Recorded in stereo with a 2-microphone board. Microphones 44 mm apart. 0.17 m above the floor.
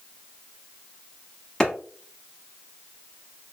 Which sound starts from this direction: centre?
A clap, at 1.6 s.